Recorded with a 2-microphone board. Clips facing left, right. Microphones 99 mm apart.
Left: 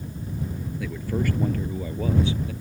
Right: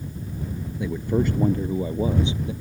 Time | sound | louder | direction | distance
0.8 | a man speaking | right 5 dB | 20° right (ahead or behind) | ?